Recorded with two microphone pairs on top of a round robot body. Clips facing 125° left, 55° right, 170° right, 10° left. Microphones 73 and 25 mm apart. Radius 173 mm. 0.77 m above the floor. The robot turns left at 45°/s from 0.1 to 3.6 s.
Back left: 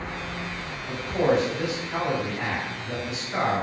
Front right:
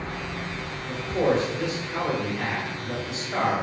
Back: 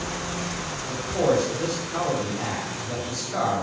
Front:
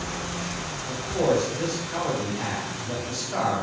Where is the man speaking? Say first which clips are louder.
Back left 1 dB, back 1 dB; 115° left, 1.4 m; by 3.6 s 10° right, 1.4 m.